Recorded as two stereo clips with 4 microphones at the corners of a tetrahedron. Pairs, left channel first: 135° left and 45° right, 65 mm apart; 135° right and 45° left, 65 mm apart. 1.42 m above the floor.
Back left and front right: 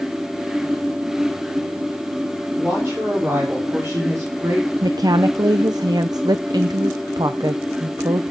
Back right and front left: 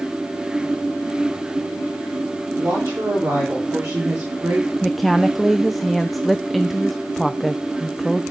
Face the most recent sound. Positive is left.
turn(degrees=-45)